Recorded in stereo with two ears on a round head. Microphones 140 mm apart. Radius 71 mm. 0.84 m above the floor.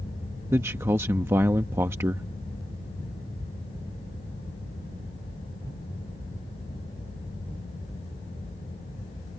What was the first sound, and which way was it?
A man speaking, 15° right (ahead or behind).